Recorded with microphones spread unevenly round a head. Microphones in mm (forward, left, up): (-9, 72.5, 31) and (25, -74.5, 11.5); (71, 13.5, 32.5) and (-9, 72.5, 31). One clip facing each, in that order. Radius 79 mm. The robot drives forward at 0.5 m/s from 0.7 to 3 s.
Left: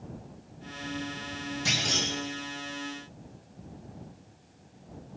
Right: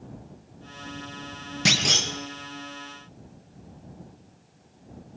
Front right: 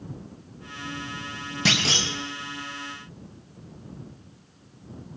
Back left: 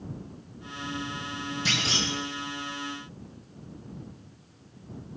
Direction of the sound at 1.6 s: 80° right.